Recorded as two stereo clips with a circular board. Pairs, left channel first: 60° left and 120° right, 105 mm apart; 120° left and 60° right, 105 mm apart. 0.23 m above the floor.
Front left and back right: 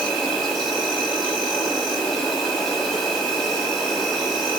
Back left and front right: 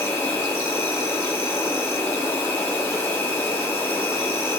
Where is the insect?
150° left, 1.0 m.